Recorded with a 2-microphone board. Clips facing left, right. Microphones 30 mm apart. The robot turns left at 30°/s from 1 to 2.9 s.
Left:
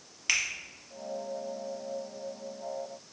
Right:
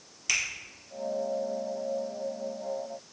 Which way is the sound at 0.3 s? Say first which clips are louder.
Even; 25° left (ahead or behind).